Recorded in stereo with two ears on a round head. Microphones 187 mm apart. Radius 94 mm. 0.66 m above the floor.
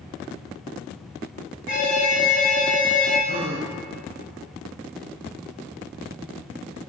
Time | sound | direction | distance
1.7 | an alarm | 60° left (ahead or behind) | 4 m
3.3 | a gasp | 30° right (ahead or behind) | 1.0 m